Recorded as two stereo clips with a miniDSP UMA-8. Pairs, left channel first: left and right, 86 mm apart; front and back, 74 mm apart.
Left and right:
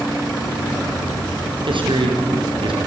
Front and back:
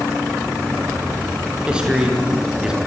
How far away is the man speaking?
About 5.5 m.